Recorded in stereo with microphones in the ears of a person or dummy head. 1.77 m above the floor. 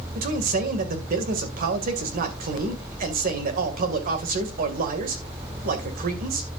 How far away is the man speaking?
About 2 m.